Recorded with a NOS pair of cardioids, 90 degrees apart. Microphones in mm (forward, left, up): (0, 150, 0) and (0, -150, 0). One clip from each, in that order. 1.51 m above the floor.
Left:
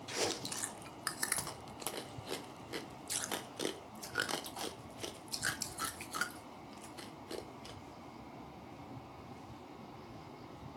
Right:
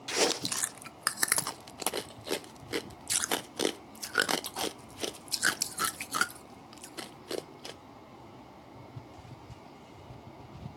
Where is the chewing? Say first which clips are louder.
Right 9 dB; 40° right, 0.8 m.